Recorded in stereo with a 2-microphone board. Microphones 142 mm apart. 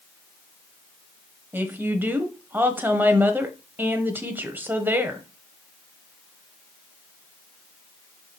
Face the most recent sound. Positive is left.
turn(degrees=-15)  # may be behind; listen again after turning